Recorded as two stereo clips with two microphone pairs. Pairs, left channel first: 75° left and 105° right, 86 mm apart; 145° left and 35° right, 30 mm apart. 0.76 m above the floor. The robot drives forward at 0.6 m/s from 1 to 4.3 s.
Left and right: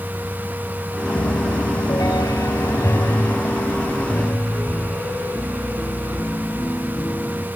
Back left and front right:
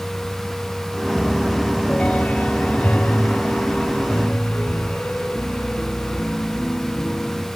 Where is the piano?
80° left, 1.0 m; by 7.5 s 150° left, 2 m.